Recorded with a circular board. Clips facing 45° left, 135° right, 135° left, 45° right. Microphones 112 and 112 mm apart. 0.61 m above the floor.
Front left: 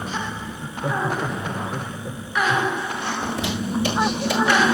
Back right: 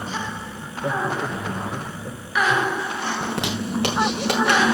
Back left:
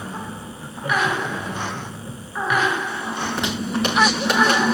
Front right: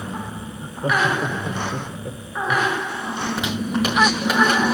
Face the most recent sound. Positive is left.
turn(degrees=-130)